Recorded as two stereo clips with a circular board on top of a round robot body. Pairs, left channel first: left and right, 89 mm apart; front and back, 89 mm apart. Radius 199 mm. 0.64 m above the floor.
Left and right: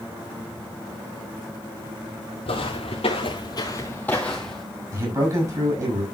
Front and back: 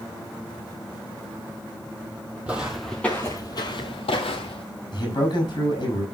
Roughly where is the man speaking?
Ahead right.